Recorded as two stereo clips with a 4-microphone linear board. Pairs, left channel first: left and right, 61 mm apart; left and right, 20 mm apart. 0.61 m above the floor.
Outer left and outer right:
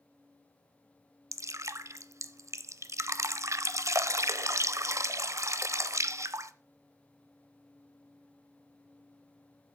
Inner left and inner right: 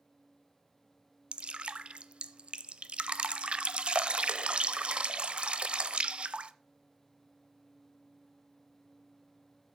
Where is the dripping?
55° right (ahead or behind), 0.5 m.